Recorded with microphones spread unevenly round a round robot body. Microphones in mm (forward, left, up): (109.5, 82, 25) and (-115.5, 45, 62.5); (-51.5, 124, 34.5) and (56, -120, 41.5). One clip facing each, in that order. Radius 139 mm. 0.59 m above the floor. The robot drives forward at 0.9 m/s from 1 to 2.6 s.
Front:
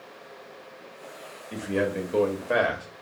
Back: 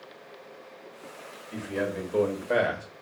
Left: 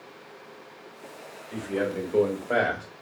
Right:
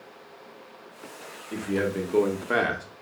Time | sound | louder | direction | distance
1.5 | a man speaking | front 4 dB, right 1 dB | 10° right | 1.3 m